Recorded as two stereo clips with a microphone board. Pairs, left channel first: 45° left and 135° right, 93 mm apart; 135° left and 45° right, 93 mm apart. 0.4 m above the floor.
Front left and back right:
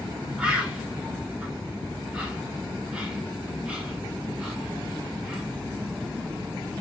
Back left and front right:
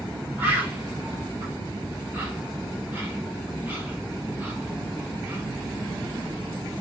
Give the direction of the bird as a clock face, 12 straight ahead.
3 o'clock.